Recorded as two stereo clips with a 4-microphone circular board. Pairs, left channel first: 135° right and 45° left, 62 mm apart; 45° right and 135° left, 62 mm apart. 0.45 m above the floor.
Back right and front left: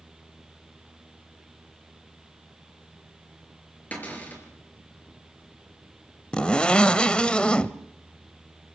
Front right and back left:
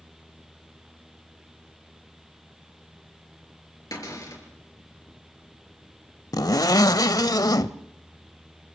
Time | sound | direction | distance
3.9 | a cupboard door | 70° right | 6 m
6.3 | a zipper | 60° right | 0.7 m